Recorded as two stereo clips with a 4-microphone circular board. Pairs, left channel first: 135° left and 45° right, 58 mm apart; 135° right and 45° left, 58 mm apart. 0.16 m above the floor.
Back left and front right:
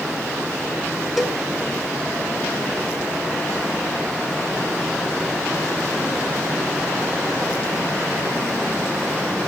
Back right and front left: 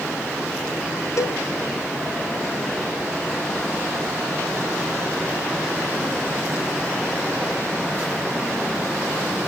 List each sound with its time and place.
1.2 s a cowbell: 135° right, 0.5 m